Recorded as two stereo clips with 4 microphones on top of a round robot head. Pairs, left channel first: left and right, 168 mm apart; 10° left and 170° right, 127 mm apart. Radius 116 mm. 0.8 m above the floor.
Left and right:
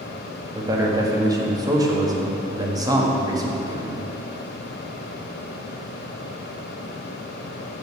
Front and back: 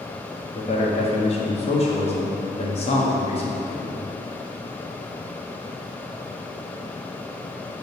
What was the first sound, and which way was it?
A man speaking, 25° right.